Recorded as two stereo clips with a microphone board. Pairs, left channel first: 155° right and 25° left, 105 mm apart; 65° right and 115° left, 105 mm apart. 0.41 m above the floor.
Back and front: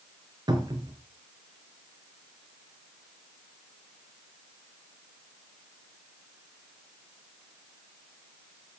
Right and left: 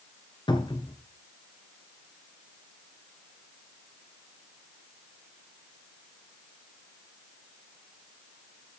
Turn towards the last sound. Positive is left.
turn(degrees=-25)